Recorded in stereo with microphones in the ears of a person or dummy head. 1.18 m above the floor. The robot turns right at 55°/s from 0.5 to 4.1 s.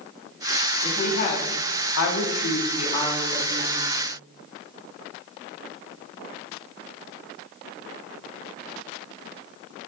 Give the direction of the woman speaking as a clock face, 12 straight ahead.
11 o'clock.